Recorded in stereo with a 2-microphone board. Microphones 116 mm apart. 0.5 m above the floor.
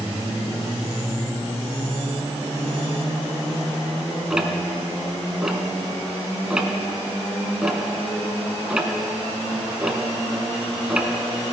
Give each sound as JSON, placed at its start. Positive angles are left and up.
{"t": 4.3, "sound": "ticking", "side_deg": -5, "distance_m": 1.5}